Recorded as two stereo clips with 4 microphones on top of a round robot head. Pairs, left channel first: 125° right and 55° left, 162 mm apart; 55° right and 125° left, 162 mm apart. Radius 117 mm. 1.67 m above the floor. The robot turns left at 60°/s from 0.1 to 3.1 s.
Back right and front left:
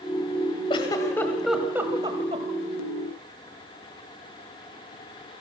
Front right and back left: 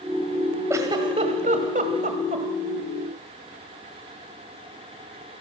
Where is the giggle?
170° right, 1.6 m; by 2.5 s 85° left, 1.6 m.